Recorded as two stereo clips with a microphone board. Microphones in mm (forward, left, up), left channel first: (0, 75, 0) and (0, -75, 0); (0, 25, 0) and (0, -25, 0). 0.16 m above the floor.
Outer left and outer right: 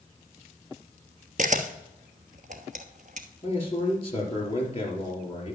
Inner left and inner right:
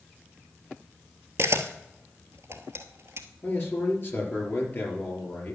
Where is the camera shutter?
65° right (ahead or behind), 1.1 m.